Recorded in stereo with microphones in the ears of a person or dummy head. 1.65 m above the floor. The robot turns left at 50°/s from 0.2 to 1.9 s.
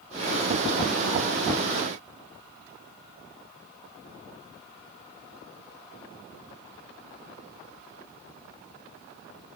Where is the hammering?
No hammering in this recording.